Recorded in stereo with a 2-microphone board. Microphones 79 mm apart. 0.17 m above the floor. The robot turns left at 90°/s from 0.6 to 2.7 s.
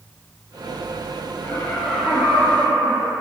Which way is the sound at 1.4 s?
40° left.